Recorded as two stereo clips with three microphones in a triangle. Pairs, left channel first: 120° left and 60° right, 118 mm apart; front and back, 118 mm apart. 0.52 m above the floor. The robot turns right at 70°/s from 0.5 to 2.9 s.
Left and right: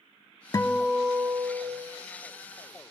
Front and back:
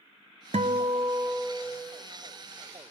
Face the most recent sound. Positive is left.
turn(degrees=-20)